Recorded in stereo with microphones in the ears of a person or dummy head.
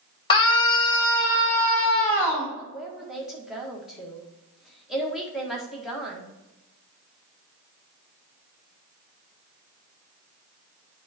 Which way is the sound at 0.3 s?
25° left (ahead or behind).